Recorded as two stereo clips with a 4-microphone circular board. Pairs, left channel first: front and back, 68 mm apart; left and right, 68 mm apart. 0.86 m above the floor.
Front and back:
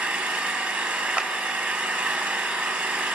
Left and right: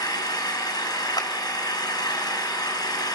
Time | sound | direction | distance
0.0 | an engine running | 115° left | 5 m
1.2 | a clap | 105° left | 2 m